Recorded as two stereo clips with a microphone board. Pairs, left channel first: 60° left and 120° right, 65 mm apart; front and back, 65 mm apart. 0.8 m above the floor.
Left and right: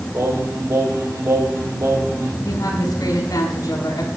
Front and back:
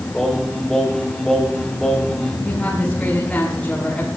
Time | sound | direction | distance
0.1 | singing | 80° right | 3.5 m
2.4 | a woman speaking | 70° left | 7 m